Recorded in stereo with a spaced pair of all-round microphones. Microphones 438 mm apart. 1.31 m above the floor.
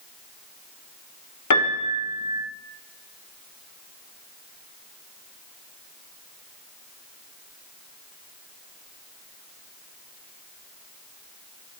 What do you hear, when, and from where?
1.5 s a piano: 45° left (ahead or behind), 0.7 m